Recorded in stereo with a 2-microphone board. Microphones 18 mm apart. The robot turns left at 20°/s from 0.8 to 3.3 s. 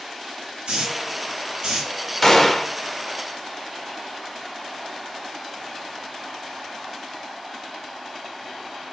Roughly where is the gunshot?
Left.